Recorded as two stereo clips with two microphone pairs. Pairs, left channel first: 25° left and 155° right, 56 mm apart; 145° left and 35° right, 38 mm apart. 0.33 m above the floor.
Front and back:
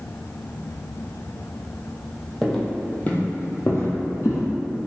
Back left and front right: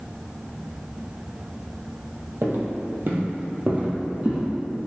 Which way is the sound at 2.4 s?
60° right.